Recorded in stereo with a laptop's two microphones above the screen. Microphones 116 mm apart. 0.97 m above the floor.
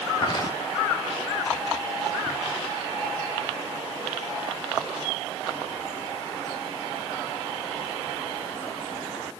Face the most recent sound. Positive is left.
turn(degrees=35)  # may be behind; listen again after turning